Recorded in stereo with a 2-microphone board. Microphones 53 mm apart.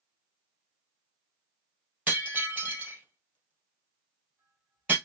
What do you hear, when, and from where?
2.1 s breaking glass: 30° right (ahead or behind), 2 m